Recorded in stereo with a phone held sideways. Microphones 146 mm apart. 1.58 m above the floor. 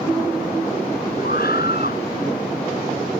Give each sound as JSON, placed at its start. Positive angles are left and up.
{"t": 1.2, "sound": "a scream", "side_deg": 85}